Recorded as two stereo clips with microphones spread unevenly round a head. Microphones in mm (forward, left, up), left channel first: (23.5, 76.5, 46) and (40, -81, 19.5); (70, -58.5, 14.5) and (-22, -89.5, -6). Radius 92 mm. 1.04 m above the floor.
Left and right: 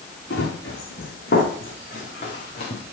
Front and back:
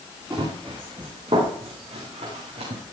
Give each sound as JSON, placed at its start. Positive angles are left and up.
{"t": 0.3, "sound": "running footsteps", "azimuth_deg": 125, "distance_m": 4.5}